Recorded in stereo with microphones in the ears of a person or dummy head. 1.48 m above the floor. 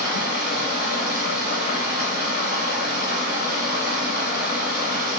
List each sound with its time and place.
0.0 s running water: 40° left (ahead or behind), 1.7 m